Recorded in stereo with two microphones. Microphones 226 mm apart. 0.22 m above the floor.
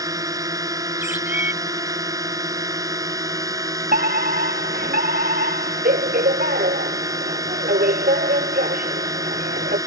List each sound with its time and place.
0.0 s a drone: 15° right (ahead or behind)
1.0 s a bird: 10° right (ahead or behind)
3.9 s a fire alarm: 40° right (ahead or behind)